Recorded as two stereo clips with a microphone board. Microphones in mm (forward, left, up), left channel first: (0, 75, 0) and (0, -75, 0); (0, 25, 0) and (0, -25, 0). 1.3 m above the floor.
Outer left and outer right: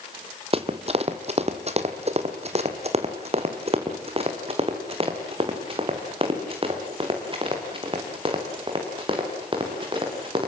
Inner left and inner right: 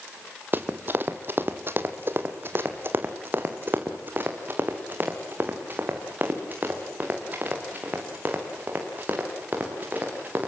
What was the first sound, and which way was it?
Running footsteps, 40° right (ahead or behind).